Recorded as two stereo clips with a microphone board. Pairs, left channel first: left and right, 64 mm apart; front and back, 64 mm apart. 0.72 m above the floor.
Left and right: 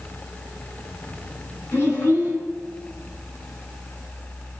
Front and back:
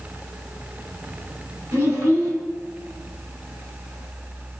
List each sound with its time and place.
1.7 s a child speaking: 145° left, 4.5 m